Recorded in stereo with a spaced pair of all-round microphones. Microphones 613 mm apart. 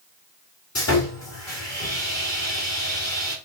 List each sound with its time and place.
0.8 s sawing: 25° left (ahead or behind), 4 m